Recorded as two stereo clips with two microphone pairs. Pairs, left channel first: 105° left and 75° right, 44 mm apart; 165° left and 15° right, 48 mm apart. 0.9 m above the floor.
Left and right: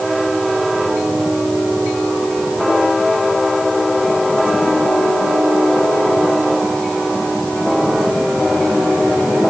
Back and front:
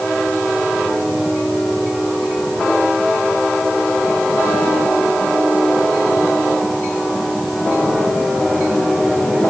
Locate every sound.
Only background noise.